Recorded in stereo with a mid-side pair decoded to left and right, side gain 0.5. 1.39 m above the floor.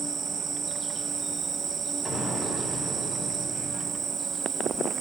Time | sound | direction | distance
0.0 | an insect | 35° right | 2.5 m
2.0 | an explosion | 30° left | 8 m